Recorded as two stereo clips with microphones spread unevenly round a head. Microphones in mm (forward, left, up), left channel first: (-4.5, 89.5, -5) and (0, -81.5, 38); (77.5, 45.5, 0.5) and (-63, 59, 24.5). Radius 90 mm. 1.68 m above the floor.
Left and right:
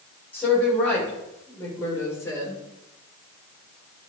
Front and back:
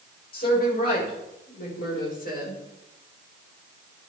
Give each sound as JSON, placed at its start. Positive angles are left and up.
{"t": 0.3, "sound": "a woman speaking", "azimuth_deg": 10, "distance_m": 8.5}